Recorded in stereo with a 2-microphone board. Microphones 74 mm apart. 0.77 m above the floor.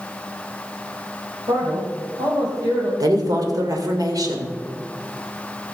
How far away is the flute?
No flute in this recording.